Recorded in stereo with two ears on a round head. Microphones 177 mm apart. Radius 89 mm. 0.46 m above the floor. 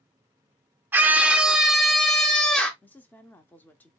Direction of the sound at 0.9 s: 10° right (ahead or behind).